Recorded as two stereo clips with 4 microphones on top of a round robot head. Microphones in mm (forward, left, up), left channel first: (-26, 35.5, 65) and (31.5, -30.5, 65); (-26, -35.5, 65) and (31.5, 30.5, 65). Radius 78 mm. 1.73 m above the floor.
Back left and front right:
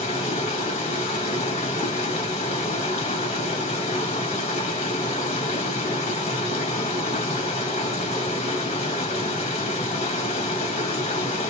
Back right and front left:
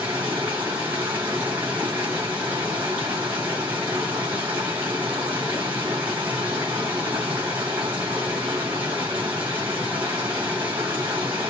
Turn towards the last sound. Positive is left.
turn(degrees=120)